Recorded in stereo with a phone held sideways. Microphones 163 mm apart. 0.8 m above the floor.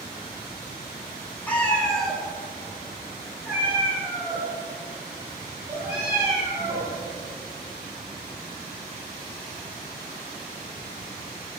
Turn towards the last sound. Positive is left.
turn(degrees=-20)  # may be behind; listen again after turning